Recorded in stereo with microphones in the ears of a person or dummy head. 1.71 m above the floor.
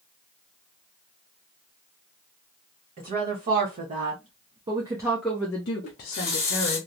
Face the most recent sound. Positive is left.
turn(degrees=20)  # may be behind; listen again after turning